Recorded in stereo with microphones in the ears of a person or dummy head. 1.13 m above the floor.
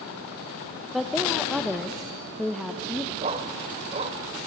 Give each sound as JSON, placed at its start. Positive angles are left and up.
{"t": 0.9, "sound": "a woman speaking", "side_deg": 0, "distance_m": 1.0}
{"t": 3.2, "sound": "a dog barking", "side_deg": -30, "distance_m": 1.8}